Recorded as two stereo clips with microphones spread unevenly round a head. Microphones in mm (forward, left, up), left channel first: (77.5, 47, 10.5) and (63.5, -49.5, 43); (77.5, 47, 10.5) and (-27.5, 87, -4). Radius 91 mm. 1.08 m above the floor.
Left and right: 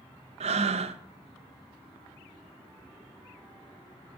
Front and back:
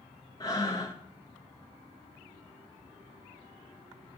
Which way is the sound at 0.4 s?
95° right.